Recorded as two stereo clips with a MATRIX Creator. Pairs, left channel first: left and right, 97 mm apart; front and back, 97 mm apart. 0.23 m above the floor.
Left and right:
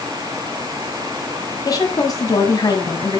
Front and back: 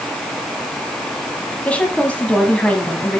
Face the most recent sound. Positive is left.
turn(degrees=70)